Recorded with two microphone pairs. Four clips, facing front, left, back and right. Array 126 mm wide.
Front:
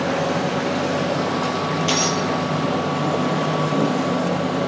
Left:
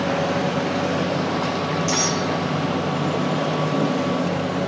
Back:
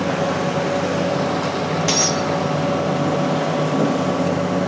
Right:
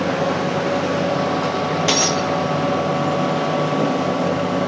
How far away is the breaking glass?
About 5 m.